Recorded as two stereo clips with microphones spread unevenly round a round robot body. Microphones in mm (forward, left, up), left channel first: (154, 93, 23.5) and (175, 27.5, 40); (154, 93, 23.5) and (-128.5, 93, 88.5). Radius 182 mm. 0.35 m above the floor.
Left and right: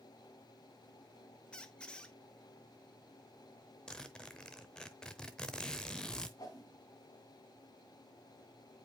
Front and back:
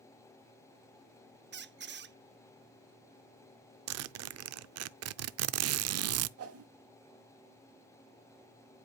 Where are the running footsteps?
No running footsteps in this recording.